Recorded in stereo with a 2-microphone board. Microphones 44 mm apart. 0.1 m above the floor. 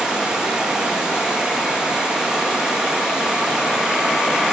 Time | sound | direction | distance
0.0 | running water | 20° right (ahead or behind) | 5 m